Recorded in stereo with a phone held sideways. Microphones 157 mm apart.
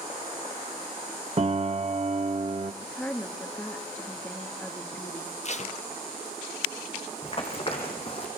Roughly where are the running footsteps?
Left.